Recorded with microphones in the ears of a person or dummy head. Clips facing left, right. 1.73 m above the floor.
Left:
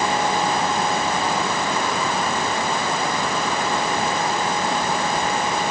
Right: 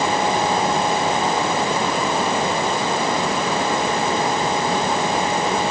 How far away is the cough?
I don't hear a cough.